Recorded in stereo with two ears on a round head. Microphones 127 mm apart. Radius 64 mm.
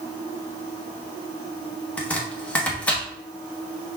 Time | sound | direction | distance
2.0 | chopping | 10° left (ahead or behind) | 1.0 m